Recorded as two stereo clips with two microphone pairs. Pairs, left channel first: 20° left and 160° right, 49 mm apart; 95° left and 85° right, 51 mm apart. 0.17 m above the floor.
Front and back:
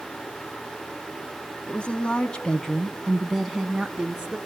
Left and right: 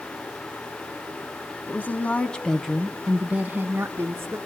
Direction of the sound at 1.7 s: 75° left.